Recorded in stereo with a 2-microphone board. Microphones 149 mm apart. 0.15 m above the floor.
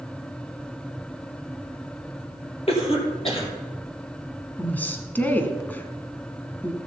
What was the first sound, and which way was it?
A cough, 40° left (ahead or behind).